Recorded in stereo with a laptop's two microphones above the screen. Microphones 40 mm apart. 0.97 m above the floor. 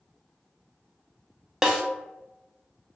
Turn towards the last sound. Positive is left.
turn(degrees=-10)  # may be behind; listen again after turning